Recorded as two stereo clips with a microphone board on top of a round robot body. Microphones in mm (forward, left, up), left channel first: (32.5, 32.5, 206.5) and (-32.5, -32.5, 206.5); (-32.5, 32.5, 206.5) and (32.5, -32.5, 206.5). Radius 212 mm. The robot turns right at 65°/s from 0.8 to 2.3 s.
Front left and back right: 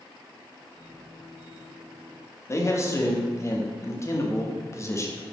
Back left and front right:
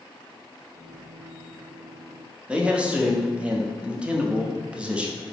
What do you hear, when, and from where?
2.5 s a man speaking: 25° left, 1.0 m